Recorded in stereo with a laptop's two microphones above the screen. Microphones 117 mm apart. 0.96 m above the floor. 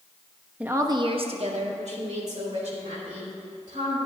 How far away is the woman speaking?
About 0.8 m.